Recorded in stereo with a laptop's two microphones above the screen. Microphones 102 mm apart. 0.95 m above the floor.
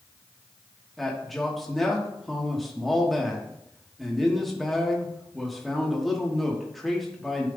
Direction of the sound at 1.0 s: Centre (ahead or behind).